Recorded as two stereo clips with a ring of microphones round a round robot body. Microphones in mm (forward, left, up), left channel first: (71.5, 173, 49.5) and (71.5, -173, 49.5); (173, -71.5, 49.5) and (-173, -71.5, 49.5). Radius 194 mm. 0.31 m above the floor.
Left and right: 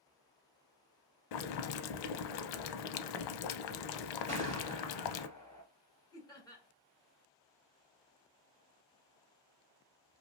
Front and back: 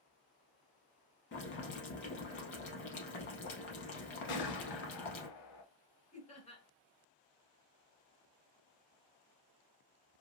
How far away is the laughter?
About 1.2 m.